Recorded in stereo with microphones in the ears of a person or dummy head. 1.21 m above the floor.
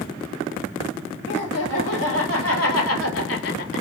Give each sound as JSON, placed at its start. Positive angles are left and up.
{"t": 1.3, "sound": "laughter", "side_deg": 60, "distance_m": 1.7}